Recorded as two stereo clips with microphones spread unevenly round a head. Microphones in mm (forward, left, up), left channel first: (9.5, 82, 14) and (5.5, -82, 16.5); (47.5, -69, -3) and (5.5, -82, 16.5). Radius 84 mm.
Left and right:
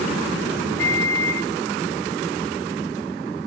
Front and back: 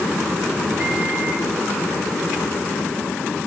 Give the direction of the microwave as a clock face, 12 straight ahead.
6 o'clock.